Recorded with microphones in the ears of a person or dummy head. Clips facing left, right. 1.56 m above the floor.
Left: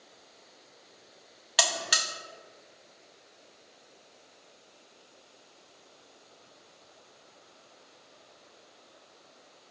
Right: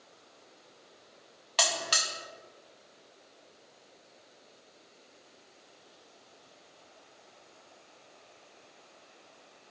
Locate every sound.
1.6 s a buzzer: 10° left (ahead or behind), 0.9 m